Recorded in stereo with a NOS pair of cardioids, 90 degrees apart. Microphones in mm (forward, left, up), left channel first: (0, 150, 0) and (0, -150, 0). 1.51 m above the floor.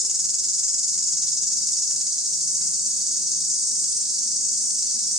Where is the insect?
Straight ahead, 0.9 m.